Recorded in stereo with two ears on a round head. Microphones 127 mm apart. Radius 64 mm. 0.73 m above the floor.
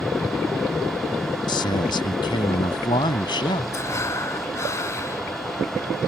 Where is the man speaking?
35° left (ahead or behind).